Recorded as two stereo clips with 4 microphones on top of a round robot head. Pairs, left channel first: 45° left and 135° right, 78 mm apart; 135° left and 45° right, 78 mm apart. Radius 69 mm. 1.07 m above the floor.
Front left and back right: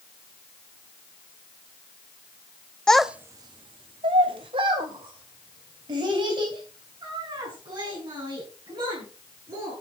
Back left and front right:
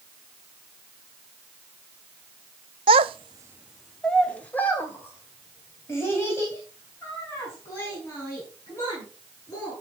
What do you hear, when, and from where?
2.9 s a child speaking: 35° right, 0.8 m; by 9.7 s 165° right, 8 m